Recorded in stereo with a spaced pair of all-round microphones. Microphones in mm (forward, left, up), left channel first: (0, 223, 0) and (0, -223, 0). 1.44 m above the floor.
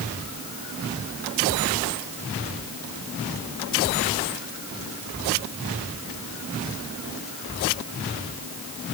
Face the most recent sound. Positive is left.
No sound to turn to.